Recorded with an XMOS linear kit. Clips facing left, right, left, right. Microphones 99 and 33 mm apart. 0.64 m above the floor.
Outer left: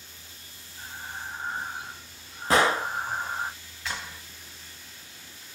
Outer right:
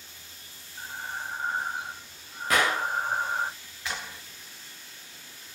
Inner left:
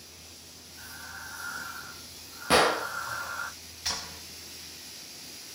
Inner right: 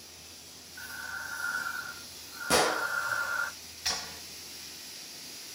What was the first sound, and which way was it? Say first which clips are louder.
Breathing: outer right 3 dB, inner right 4 dB; 60° right (ahead or behind).